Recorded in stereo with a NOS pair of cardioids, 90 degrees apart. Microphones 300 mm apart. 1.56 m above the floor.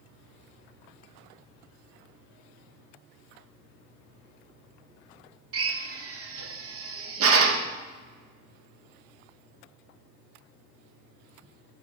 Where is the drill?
50° right, 1.3 m.